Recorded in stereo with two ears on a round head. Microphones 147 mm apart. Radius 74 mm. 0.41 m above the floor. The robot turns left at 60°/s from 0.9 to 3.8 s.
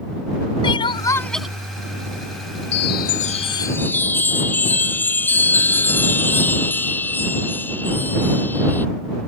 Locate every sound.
0.6 s crying: 30° left; by 1.5 s 5° right
2.7 s a chime: 75° left; by 8.9 s 10° left